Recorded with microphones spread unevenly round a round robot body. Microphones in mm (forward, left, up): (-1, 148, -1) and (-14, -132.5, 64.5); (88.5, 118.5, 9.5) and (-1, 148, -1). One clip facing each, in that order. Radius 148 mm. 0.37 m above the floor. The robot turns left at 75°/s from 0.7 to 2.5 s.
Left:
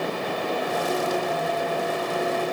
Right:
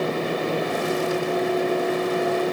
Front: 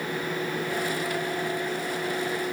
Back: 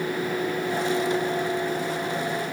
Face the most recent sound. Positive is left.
No sound to turn to.